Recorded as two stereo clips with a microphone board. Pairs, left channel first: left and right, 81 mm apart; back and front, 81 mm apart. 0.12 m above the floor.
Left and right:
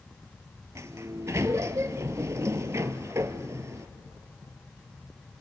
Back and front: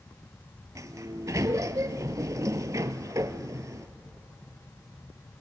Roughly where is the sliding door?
Ahead right.